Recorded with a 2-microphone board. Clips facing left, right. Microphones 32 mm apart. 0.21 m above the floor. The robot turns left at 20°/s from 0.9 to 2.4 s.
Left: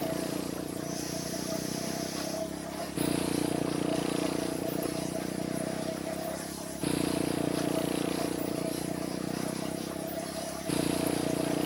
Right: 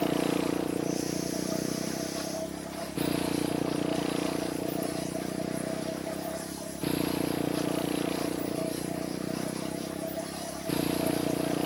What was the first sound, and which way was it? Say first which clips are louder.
A motorcycle: right 5 dB; 140° right.